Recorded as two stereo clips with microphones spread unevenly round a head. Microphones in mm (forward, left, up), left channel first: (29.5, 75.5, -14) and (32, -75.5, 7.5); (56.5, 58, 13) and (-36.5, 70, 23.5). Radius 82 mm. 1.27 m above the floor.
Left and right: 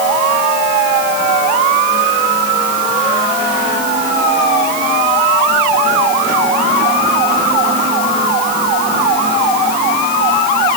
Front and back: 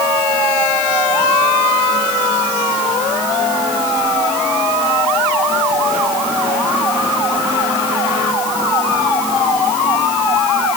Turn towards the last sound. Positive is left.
No sound to turn to.